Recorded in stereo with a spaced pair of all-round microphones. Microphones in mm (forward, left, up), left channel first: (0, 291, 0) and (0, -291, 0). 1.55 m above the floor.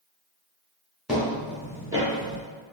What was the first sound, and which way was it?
Footsteps, centre (ahead or behind).